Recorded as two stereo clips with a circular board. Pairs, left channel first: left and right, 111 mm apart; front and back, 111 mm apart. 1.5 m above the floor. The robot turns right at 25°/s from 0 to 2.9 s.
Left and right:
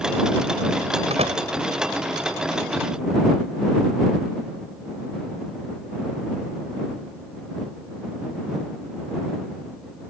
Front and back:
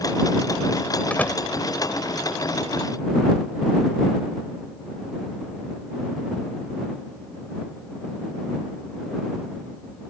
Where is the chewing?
No chewing in this recording.